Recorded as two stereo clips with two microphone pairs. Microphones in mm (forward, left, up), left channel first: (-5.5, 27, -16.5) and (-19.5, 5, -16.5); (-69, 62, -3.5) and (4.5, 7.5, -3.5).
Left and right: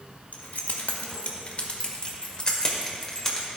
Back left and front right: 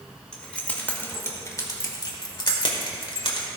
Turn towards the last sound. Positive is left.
turn(degrees=135)